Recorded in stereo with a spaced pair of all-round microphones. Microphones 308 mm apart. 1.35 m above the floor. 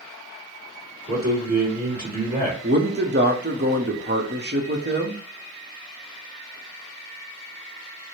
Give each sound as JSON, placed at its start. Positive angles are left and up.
{"t": 1.1, "sound": "a man speaking", "side_deg": -30, "distance_m": 2.0}
{"t": 2.6, "sound": "a man speaking", "side_deg": -35, "distance_m": 0.8}